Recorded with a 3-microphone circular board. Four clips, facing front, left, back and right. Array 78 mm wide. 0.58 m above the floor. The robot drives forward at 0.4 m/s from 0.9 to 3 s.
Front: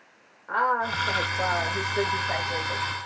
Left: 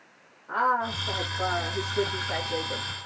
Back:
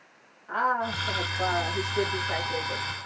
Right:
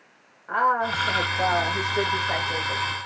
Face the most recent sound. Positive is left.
turn(degrees=-75)